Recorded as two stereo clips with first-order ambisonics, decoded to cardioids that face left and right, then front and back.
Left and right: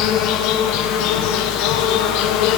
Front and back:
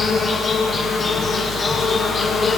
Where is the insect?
70° left, 1.6 m.